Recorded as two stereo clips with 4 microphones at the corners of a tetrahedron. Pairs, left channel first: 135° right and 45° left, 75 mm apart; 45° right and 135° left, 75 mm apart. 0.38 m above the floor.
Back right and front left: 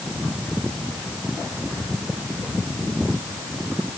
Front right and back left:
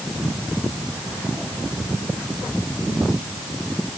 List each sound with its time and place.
Only background noise.